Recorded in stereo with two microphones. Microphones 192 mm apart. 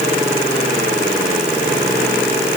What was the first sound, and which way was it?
Only background noise.